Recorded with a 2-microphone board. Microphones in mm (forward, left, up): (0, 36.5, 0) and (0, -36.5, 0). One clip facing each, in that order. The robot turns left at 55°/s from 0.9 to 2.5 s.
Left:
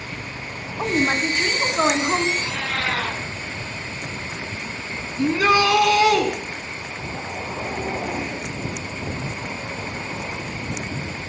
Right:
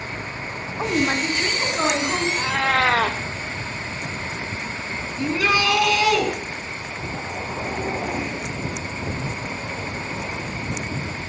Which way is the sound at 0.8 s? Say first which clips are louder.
Left 1 dB; centre (ahead or behind).